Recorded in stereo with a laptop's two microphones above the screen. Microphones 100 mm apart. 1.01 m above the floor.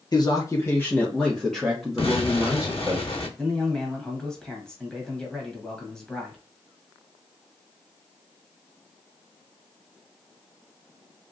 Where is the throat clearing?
I don't hear throat clearing.